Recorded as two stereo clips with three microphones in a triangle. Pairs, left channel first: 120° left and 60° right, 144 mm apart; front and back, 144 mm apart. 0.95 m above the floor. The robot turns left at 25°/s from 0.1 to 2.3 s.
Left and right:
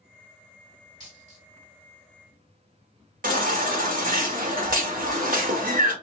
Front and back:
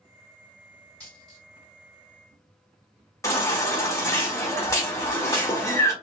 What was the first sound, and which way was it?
A dropped coin, 85° right.